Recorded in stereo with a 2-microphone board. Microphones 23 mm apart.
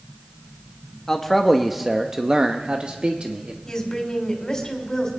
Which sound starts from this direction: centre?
A man speaking, at 1.1 s.